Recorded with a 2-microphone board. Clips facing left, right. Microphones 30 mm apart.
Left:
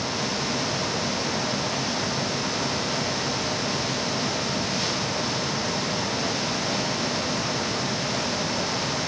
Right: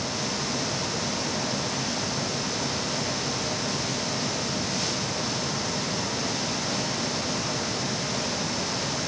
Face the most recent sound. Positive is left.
No sound to turn to.